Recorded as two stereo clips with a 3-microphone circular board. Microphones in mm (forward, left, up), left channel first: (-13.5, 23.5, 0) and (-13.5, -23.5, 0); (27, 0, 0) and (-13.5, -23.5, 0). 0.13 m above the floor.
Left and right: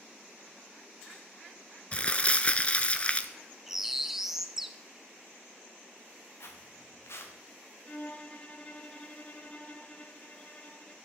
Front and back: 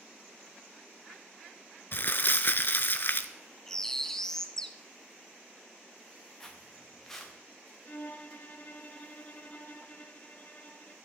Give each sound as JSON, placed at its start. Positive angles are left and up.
{"t": 1.9, "sound": "crumpling", "azimuth_deg": 40, "distance_m": 0.7}
{"t": 3.7, "sound": "a bird", "azimuth_deg": -25, "distance_m": 0.6}
{"t": 6.4, "sound": "footsteps", "azimuth_deg": 110, "distance_m": 2.5}
{"t": 7.8, "sound": "a violin", "azimuth_deg": 50, "distance_m": 0.7}